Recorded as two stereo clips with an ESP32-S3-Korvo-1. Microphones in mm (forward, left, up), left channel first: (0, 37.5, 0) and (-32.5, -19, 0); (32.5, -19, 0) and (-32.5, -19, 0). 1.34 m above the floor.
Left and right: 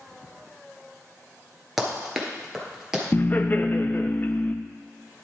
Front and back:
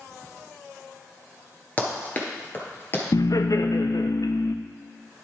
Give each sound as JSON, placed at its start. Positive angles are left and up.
{"t": 1.8, "sound": "running footsteps", "azimuth_deg": -40, "distance_m": 1.4}
{"t": 3.1, "sound": "laughter", "azimuth_deg": 5, "distance_m": 0.6}